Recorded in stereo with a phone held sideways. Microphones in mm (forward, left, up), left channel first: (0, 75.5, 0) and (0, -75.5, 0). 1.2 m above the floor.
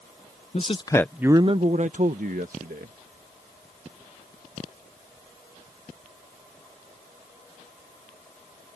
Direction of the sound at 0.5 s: 50° left (ahead or behind).